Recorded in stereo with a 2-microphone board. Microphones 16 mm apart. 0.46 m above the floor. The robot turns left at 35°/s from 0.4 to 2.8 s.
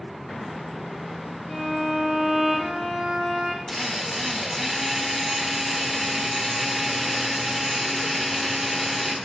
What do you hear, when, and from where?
1.5 s a violin: 50° right, 4.5 m; by 3.6 s 95° right, 4.5 m
3.7 s a drill: 35° right (ahead or behind), 1.4 m